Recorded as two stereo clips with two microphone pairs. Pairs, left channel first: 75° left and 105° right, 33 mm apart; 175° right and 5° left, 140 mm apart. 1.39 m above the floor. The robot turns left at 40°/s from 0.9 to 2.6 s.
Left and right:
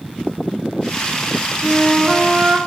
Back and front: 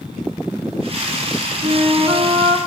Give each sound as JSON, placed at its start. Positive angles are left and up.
{"t": 1.6, "sound": "a flute", "azimuth_deg": 5, "distance_m": 1.6}